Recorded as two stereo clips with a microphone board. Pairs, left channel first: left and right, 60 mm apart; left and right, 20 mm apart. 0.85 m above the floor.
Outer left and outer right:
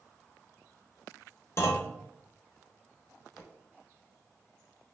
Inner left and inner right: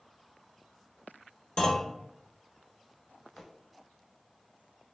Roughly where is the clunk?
Left.